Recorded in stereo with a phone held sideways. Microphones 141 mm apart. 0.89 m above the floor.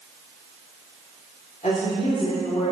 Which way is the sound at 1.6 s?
70° left (ahead or behind).